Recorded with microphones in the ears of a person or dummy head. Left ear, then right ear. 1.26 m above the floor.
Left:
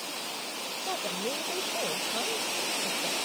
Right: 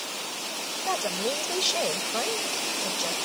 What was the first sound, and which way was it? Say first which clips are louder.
A woman speaking: right 5 dB; 90° right.